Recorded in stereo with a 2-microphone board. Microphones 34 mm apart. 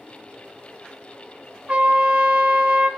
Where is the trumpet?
40° right (ahead or behind), 1.8 m.